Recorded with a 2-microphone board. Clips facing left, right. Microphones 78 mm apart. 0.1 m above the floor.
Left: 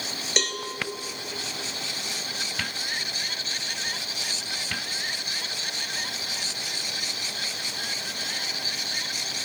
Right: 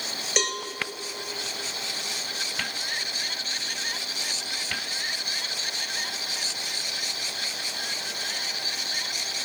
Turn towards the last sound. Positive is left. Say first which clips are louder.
# right 1 dB
turn(degrees=-5)  # may be behind; listen again after turning